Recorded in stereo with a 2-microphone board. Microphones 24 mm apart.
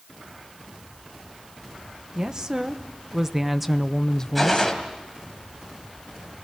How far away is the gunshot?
About 3 m.